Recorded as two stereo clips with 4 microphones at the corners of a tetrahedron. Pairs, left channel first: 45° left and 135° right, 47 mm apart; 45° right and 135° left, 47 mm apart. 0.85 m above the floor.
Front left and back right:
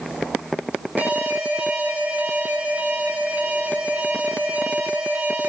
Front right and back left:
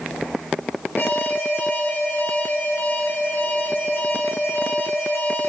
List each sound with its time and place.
1.0 s an alarm: 85° right, 6 m